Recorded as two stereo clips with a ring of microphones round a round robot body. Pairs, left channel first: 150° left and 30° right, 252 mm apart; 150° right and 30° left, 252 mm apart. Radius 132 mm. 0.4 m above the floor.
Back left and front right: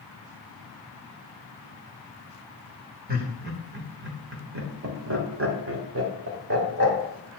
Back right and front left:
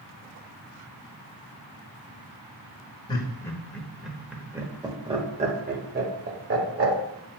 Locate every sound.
3.1 s laughter: 80° right, 1.8 m; by 7.0 s straight ahead, 2 m